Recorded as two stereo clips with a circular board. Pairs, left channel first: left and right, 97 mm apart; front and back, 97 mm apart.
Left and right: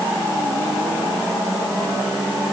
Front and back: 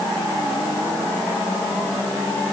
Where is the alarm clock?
I don't hear an alarm clock.